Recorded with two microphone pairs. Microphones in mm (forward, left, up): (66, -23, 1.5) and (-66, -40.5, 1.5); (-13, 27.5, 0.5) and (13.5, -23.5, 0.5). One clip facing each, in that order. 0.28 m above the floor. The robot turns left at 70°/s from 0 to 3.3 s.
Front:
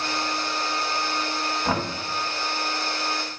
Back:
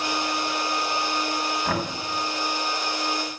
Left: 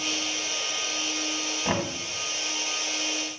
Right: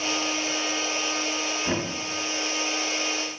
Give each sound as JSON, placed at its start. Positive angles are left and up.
{"t": 1.6, "sound": "knocking", "azimuth_deg": 70, "distance_m": 1.8}